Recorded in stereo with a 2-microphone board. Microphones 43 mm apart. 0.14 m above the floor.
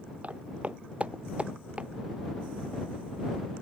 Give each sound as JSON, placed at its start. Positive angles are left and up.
{"t": 0.2, "sound": "footsteps", "side_deg": -35}